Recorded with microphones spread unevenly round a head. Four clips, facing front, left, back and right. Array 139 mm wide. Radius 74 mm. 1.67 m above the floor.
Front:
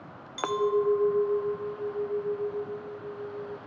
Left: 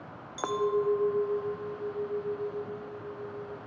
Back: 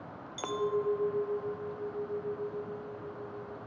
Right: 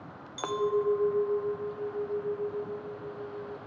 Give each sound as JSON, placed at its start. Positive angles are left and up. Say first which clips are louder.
{"t": 0.4, "sound": "a clink", "louder": "even, front 6 dB", "azimuth_deg": 35, "distance_m": 0.5}